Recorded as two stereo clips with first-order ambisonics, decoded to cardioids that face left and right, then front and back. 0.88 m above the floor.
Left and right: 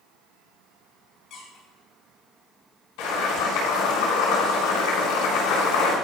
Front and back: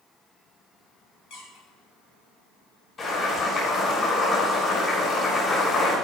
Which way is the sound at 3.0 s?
65° left.